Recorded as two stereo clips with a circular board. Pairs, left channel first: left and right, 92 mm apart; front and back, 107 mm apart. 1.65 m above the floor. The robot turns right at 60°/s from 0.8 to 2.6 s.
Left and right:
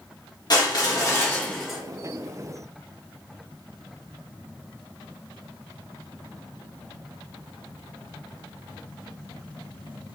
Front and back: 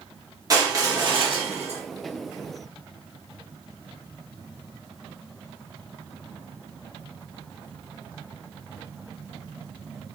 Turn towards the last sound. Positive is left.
turn(degrees=-125)